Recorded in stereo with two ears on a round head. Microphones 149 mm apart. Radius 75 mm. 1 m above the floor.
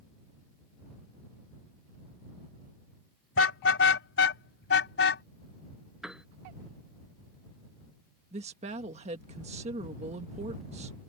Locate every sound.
3.4 s a car horn: 80° left
6.0 s a piano: 5° right (ahead or behind)
8.3 s a woman speaking: 40° right (ahead or behind)